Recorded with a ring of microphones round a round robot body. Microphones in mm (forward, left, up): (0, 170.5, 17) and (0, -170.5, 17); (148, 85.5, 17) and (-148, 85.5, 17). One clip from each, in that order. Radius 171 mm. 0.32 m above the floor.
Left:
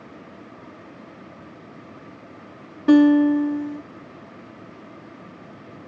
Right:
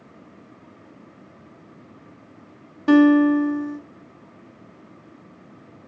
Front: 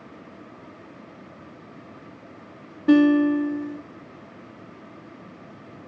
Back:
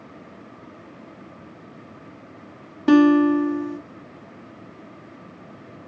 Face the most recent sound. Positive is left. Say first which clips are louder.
# even, back 2 dB
turn(degrees=-150)